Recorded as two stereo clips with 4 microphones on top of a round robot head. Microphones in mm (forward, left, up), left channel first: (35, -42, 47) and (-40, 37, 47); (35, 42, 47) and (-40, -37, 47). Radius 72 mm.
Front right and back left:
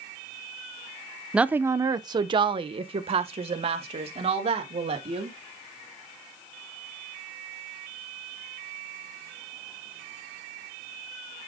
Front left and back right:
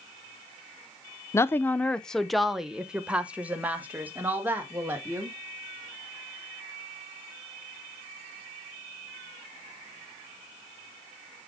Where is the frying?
I don't hear frying.